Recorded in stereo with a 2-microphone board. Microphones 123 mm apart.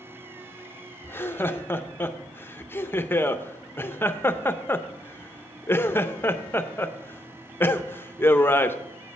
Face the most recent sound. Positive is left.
turn(degrees=15)  # may be behind; listen again after turning